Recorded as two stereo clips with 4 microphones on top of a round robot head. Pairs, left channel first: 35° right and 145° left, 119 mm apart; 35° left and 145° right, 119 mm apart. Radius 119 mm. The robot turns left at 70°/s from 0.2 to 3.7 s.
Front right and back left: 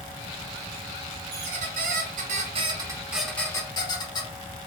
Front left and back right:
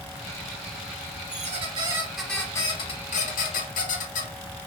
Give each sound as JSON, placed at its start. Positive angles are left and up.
{"t": 1.3, "sound": "a squeak", "azimuth_deg": -170, "distance_m": 0.6}